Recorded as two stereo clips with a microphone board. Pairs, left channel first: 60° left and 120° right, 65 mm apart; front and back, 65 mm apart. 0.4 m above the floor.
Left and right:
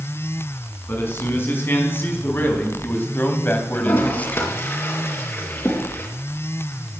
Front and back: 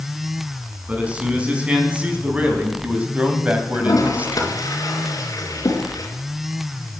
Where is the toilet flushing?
10° left, 3.5 m.